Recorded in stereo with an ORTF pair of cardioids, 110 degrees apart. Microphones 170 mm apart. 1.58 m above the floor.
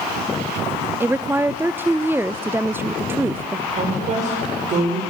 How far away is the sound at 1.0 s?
About 0.5 m.